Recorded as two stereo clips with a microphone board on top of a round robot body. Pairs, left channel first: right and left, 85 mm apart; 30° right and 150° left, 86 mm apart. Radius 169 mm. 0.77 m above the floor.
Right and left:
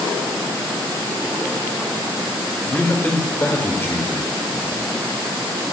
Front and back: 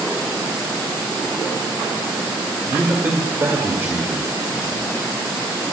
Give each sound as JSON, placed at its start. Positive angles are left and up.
{"t": 2.7, "sound": "a man speaking", "azimuth_deg": -150, "distance_m": 1.9}